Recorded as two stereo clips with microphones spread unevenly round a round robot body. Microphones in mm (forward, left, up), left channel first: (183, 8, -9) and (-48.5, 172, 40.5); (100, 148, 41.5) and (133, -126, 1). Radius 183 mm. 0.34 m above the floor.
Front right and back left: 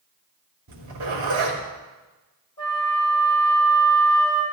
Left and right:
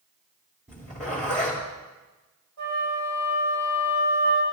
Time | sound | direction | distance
0.7 | a zipper | 170° right | 3 m
2.6 | a flute | 115° right | 7 m